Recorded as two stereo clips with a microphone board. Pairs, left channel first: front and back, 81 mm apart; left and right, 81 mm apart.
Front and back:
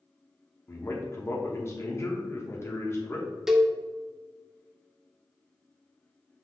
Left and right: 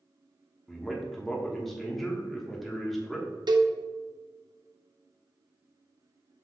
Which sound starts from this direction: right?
A cowbell, at 3.5 s.